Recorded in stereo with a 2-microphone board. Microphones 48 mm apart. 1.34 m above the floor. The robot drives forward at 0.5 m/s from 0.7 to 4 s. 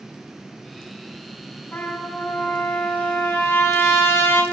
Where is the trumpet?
50° left (ahead or behind), 3 m; by 4.4 s 70° left (ahead or behind), 2.5 m.